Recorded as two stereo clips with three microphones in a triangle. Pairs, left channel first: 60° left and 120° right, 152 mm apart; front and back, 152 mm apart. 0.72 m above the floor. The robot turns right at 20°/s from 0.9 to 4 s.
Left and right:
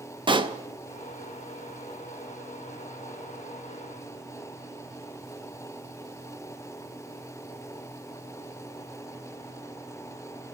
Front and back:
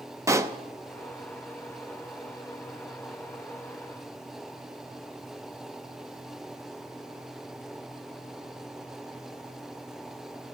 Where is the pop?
130° right, 0.5 m.